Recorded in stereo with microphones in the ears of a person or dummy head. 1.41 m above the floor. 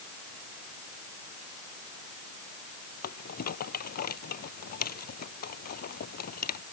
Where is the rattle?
55° left (ahead or behind).